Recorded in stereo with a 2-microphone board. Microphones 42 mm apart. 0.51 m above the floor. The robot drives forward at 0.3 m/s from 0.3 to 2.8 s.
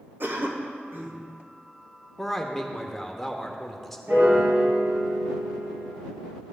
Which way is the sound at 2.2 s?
5° left (ahead or behind).